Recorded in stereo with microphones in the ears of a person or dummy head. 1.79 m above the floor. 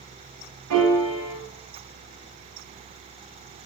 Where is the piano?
70° right (ahead or behind), 0.7 m.